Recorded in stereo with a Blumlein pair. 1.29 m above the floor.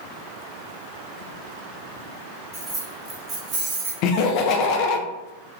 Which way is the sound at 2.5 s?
10° right.